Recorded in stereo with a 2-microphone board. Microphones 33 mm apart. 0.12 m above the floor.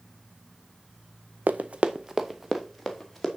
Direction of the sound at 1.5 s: 75° right (ahead or behind).